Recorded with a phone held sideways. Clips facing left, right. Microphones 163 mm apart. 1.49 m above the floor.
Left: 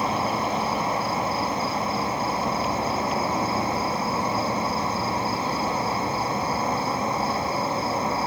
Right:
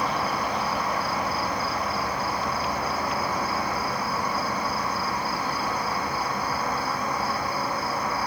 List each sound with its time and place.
0.0 s an insect: 25° left (ahead or behind), 1.3 m